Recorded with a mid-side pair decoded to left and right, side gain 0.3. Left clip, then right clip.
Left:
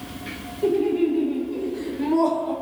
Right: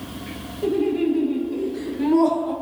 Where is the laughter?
60° right, 1.9 m; by 2.5 s 5° right, 1.3 m.